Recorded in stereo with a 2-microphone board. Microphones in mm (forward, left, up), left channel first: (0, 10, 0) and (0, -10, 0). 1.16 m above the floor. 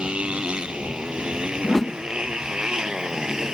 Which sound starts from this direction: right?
A motorcycle, at 0.0 s.